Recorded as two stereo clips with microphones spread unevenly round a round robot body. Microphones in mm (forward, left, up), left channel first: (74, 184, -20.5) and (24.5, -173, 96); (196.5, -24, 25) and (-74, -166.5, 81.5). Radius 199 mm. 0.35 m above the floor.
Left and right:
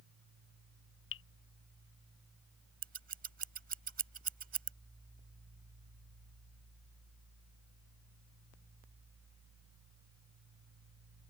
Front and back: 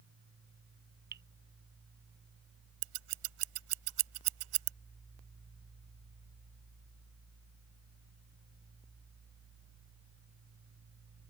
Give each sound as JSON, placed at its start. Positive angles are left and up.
{"t": 1.1, "sound": "dripping", "azimuth_deg": 140}
{"t": 2.8, "sound": "scissors", "azimuth_deg": -170}